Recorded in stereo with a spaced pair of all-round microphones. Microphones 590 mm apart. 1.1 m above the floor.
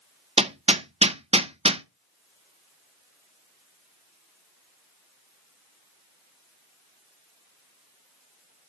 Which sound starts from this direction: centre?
Hammering, at 0.4 s.